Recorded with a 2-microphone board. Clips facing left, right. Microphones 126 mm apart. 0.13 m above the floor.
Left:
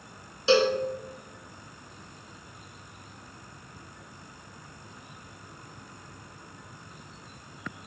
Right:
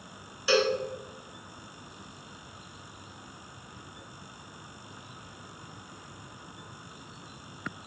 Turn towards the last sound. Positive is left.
turn(degrees=25)  # may be behind; listen again after turning